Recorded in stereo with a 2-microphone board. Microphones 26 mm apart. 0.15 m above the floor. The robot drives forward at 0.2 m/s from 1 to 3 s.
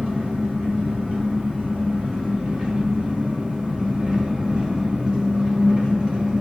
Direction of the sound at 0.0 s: 55° right (ahead or behind).